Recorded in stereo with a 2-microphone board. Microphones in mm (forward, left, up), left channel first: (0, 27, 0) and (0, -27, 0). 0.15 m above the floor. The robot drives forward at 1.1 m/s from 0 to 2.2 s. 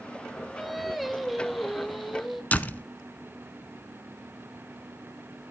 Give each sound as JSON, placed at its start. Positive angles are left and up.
{"t": 0.6, "sound": "singing", "side_deg": -5, "distance_m": 0.8}
{"t": 2.5, "sound": "a door slam", "side_deg": 30, "distance_m": 0.9}